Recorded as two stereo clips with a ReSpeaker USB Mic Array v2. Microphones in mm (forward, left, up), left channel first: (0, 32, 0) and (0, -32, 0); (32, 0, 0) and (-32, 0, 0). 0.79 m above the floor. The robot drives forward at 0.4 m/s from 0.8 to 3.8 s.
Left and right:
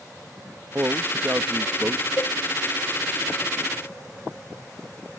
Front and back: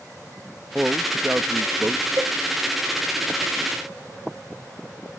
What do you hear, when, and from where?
0.8 s a man speaking: 105° right; by 2.1 s 140° right
2.2 s a cowbell: 130° left; by 2.4 s 135° left